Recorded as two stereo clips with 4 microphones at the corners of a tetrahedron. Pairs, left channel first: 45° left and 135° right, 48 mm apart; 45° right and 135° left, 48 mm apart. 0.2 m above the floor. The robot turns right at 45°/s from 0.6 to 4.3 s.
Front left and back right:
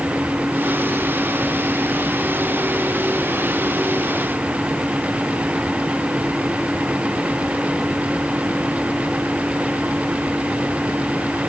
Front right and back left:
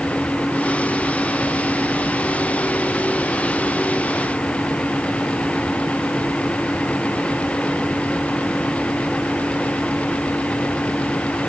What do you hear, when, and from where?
Only background noise.